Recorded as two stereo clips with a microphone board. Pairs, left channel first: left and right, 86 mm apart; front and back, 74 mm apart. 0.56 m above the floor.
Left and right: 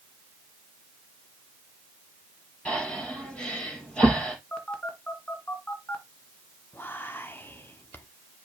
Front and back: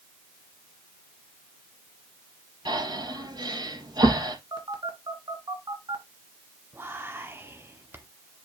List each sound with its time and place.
2.6 s breathing: 170° left, 4.5 m
4.5 s a phone buzzing: 170° left, 2 m
6.7 s whispering: 145° left, 1.0 m